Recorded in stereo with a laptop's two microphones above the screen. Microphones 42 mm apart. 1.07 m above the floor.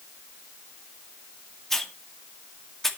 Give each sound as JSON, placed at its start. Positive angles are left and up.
{"t": 1.7, "sound": "a hiss", "side_deg": 10, "distance_m": 2.0}